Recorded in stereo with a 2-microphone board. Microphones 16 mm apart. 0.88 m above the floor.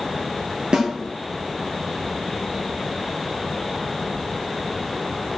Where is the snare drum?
70° right (ahead or behind), 3 m.